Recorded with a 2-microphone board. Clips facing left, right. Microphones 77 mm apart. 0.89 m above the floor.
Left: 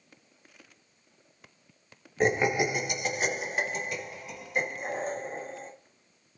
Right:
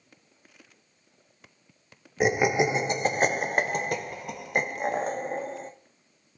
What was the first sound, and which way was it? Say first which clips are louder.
Laughter: right 2 dB; 5° right (ahead or behind).